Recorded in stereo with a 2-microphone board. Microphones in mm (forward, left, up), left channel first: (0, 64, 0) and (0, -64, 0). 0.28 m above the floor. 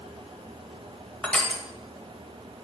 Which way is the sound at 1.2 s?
5° left (ahead or behind).